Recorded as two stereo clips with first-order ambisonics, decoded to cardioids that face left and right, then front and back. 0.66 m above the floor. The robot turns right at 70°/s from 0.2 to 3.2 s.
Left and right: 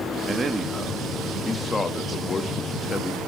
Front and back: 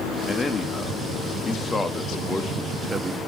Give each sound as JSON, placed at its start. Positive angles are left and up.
{"t": 0.3, "sound": "a man speaking", "azimuth_deg": -65, "distance_m": 1.0}